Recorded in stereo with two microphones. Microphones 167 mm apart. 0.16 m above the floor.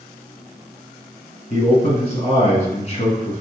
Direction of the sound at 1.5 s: 40° left (ahead or behind).